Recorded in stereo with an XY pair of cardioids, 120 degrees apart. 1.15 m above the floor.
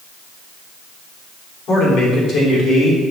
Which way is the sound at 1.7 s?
65° left.